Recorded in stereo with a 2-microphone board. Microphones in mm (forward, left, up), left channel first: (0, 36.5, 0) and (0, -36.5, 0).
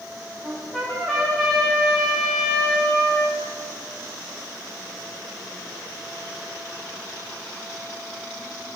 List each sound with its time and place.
0.4 s a trumpet: 5° left (ahead or behind), 9.5 m